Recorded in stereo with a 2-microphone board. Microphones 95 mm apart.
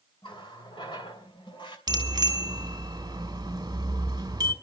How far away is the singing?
No singing in this recording.